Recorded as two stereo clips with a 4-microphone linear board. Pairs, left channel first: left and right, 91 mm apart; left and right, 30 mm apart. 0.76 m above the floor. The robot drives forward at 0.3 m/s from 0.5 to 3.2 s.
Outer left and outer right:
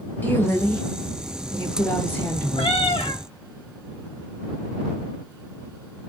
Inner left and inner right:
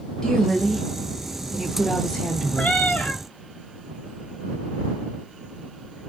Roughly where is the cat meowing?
Left.